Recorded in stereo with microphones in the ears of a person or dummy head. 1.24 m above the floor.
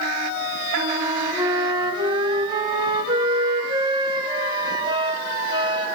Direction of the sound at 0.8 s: 25° right (ahead or behind).